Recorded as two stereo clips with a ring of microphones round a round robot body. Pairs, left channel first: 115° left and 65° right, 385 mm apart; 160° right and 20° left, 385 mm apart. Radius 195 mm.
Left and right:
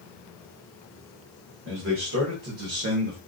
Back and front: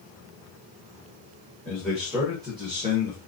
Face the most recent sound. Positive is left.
turn(degrees=-25)